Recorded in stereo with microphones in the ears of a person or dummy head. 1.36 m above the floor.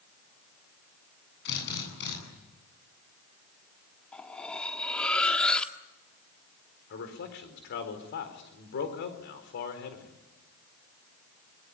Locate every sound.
1.4 s a drill: 60° left (ahead or behind), 9.5 m
4.1 s cutlery clinking: 5° left (ahead or behind), 1.4 m
6.9 s a man speaking: 60° left (ahead or behind), 4 m